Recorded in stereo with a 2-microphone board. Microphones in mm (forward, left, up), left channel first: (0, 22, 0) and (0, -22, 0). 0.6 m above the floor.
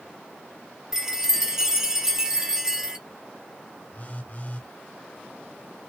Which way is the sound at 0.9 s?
10° right (ahead or behind).